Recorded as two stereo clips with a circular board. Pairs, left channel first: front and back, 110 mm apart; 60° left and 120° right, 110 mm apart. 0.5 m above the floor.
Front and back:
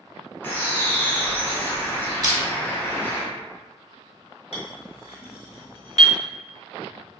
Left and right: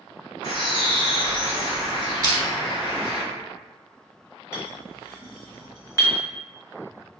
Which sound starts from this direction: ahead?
A clink, at 4.5 s.